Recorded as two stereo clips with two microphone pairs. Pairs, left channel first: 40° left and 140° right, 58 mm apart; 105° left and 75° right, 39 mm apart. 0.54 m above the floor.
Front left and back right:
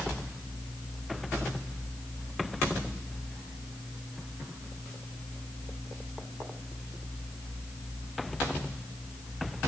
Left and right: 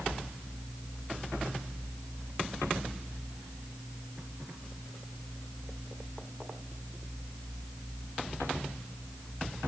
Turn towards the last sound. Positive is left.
No sound to turn to.